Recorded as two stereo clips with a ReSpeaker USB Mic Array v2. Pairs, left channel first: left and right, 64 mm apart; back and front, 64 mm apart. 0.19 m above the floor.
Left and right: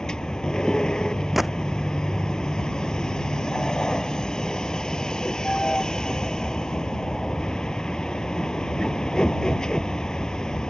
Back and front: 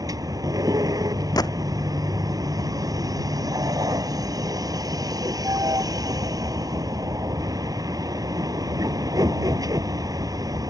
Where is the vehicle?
10° left.